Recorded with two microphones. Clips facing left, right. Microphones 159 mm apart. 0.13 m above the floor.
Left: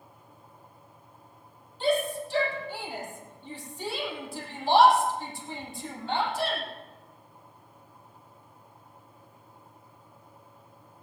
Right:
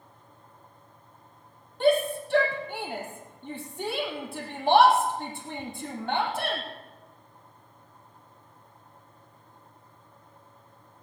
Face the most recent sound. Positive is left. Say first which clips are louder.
# right 4 dB
turn(degrees=-60)  # may be behind; listen again after turning